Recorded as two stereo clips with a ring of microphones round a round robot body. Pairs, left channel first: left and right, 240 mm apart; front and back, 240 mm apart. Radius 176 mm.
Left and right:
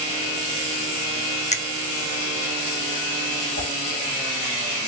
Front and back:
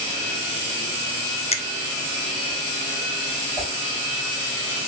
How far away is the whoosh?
About 2.5 m.